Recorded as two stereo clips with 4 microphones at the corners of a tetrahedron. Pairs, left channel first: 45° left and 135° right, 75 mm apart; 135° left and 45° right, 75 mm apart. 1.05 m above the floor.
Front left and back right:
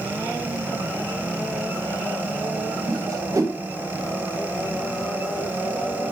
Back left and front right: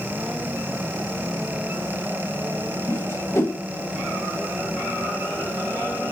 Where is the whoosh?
175° right, 0.9 m.